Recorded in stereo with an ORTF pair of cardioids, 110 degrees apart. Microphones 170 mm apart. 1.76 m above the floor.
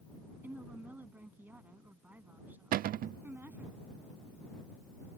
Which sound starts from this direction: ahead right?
A cupboard door, at 2.7 s.